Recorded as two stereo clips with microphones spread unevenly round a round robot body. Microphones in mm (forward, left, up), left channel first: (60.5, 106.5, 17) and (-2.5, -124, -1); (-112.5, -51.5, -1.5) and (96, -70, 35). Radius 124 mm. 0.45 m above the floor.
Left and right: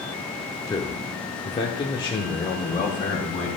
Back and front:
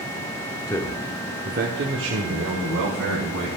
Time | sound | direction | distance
0.7 | a man speaking | 145° left | 1.1 m